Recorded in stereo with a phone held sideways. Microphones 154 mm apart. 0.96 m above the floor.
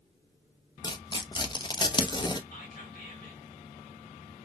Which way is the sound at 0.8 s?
30° left (ahead or behind).